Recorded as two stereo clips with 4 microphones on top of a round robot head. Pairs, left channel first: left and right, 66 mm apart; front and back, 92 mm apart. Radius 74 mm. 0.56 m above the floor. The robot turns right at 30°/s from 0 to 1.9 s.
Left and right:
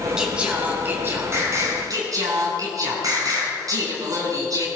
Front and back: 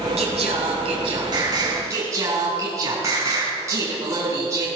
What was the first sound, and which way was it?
Singing, 170° right.